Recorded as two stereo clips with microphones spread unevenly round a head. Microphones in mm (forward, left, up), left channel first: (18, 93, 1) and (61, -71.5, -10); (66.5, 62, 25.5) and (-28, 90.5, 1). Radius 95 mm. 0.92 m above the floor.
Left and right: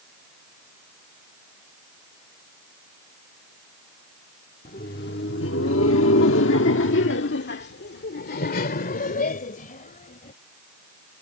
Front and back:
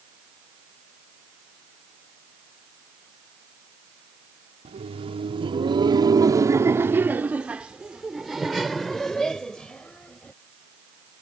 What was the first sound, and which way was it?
Laughter, 155° left.